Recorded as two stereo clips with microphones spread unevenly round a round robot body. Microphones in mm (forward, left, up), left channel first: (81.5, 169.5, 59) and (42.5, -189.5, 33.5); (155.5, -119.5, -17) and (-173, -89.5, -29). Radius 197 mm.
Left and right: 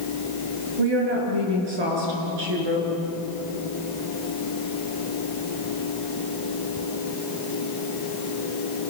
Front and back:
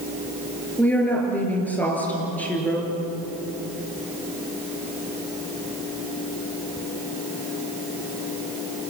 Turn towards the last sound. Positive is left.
turn(degrees=-90)